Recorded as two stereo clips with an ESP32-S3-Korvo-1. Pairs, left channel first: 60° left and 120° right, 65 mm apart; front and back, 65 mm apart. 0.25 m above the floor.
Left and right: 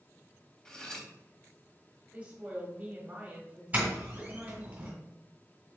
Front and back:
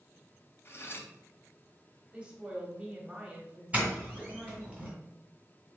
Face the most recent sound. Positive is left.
turn(degrees=-145)